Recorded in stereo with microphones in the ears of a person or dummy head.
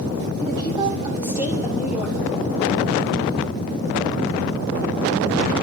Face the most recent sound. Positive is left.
turn(degrees=-5)  # may be behind; listen again after turning